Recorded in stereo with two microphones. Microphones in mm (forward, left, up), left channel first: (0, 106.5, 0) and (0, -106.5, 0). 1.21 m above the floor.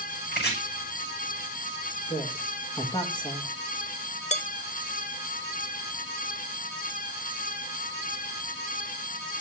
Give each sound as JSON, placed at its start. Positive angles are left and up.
{"t": 0.3, "sound": "chopping", "side_deg": 50, "distance_m": 7.0}
{"t": 2.1, "sound": "a woman speaking", "side_deg": 20, "distance_m": 2.0}
{"t": 4.3, "sound": "dishes clattering", "side_deg": 35, "distance_m": 0.7}